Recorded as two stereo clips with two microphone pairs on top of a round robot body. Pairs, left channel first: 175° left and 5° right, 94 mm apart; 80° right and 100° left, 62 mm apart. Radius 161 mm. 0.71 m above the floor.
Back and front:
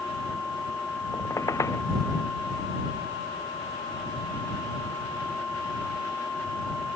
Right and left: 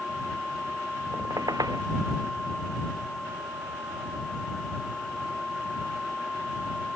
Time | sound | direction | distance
1.1 | a squeak | 115° left | ?